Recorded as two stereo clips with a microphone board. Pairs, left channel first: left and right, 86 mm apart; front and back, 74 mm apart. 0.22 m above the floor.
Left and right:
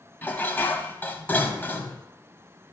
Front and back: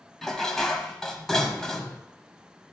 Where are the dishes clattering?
75° left, 0.8 m.